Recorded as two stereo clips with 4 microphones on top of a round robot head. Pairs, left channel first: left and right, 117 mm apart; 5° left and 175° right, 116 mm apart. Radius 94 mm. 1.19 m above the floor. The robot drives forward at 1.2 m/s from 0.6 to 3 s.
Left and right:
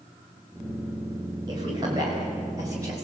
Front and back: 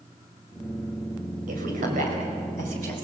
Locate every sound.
1.5 s a woman speaking: 155° right, 5 m; by 3.0 s 160° right, 7 m